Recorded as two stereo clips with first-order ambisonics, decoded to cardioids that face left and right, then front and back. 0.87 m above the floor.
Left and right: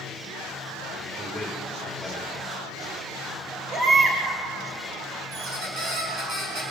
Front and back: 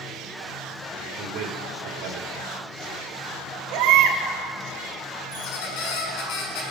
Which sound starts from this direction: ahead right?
A squeak, at 5.3 s.